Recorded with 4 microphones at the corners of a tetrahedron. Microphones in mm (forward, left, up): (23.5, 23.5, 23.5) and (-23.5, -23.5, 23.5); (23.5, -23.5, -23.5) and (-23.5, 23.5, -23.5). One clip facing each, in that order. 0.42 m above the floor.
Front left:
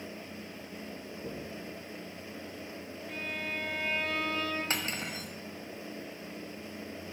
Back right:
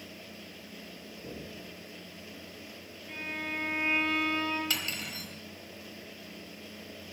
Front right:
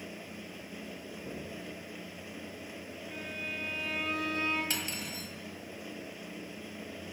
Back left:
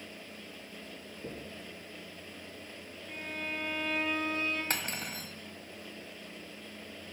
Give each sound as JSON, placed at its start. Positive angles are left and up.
{"t": 1.2, "sound": "knocking", "azimuth_deg": 120, "distance_m": 3.5}
{"t": 3.1, "sound": "a violin", "azimuth_deg": 160, "distance_m": 5.5}
{"t": 4.7, "sound": "cutlery clinking", "azimuth_deg": 100, "distance_m": 1.2}